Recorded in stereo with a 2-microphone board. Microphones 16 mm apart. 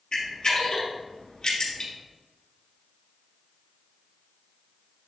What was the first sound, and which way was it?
A camera shutter, 55° left (ahead or behind).